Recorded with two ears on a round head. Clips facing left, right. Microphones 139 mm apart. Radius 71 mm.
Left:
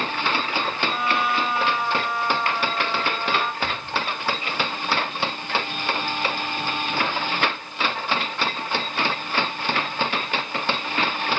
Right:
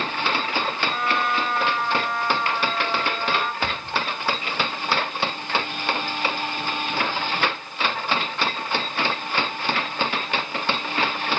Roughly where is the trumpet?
Centre.